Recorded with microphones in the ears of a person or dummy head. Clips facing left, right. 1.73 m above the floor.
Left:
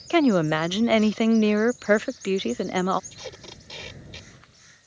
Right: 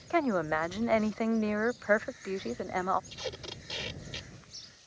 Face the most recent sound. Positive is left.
turn(degrees=-5)  # may be behind; listen again after turning